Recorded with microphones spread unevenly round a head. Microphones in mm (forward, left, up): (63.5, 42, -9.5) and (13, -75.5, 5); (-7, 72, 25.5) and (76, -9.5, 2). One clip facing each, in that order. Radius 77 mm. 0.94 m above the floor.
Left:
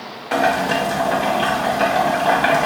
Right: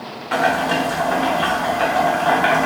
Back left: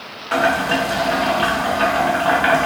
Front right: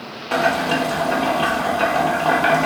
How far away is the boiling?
About 1.0 m.